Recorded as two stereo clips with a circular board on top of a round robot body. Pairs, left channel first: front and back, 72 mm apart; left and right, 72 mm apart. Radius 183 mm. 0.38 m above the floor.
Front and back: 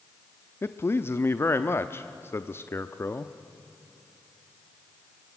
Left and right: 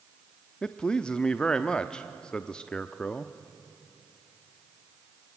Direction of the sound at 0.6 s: 20° left.